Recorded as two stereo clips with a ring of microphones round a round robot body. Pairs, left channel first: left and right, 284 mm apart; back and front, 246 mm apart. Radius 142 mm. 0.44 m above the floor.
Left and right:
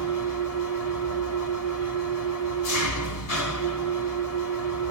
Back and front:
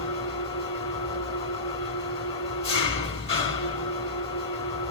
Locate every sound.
0.0 s an engine running: 115° left, 2 m